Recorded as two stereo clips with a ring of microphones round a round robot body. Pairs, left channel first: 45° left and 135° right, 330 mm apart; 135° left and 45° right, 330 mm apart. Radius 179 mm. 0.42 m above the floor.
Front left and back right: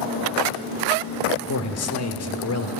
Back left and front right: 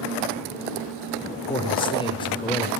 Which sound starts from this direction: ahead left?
A man speaking, at 1.5 s.